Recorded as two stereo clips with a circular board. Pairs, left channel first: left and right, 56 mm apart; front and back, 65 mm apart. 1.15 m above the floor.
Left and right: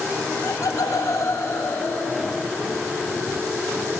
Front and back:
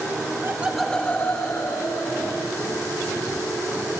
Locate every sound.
0.4 s laughter: 130° left, 0.9 m; by 2.5 s 25° left, 3 m